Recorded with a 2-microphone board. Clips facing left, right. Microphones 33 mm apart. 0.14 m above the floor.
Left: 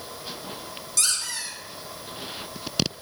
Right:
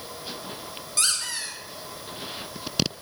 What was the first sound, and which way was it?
A squeak, 35° right (ahead or behind).